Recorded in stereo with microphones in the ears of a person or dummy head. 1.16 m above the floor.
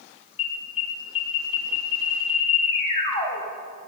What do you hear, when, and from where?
0.4 s an alarm: 35° left (ahead or behind), 2.5 m